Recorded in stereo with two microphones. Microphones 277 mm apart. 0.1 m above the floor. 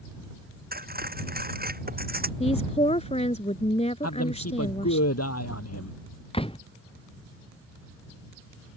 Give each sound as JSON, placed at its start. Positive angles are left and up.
{"t": 0.7, "sound": "cutlery clinking", "side_deg": -35}
{"t": 2.4, "sound": "a woman speaking", "side_deg": 25}
{"t": 4.0, "sound": "a man speaking", "side_deg": 60}
{"t": 6.3, "sound": "a door slam", "side_deg": 20}